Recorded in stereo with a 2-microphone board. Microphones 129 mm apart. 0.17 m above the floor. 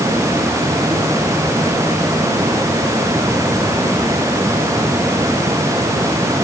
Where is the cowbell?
No cowbell in this recording.